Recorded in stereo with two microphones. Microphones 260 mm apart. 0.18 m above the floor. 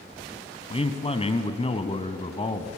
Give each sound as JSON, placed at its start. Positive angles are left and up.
{"t": 0.7, "sound": "a man speaking", "side_deg": 25, "distance_m": 1.0}